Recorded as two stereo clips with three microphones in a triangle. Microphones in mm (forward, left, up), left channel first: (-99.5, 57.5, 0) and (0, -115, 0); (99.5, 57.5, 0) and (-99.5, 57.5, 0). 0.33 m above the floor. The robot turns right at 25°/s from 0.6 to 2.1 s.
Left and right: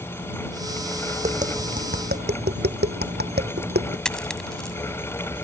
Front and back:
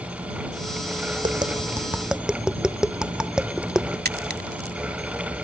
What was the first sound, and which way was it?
Tapping, 115° right.